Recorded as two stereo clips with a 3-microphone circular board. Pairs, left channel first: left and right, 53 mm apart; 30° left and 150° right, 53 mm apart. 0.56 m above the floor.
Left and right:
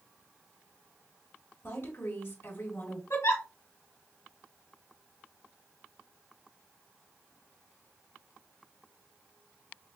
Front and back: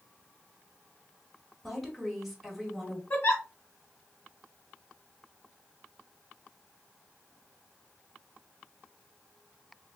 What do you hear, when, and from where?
1.6 s a woman speaking: 120° left, 1.9 m
3.1 s a giggle: 75° left, 1.6 m